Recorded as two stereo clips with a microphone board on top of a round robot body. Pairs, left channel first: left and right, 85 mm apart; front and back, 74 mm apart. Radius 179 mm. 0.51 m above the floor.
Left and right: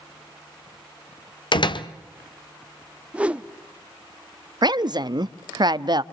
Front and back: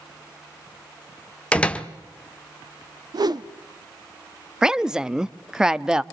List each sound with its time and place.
1.5 s a door slam: 75° left, 1.5 m
3.1 s a whoosh: 165° right, 1.3 m
4.6 s a woman speaking: 100° right, 1.1 m